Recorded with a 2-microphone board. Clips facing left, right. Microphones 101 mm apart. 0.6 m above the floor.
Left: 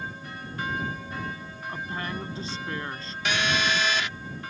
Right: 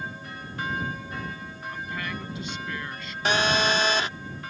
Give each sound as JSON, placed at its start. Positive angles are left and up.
{"t": 1.7, "sound": "a woman speaking", "side_deg": 35}
{"t": 3.2, "sound": "a phone buzzing", "side_deg": -35}